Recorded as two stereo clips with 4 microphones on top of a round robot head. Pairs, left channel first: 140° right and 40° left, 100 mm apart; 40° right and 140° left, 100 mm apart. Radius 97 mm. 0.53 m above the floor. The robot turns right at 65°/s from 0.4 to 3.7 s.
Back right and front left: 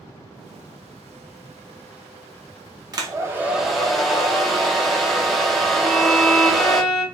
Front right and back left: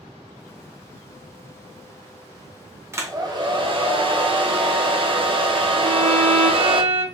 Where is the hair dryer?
80° left, 0.8 m; by 6.8 s 130° left, 0.8 m.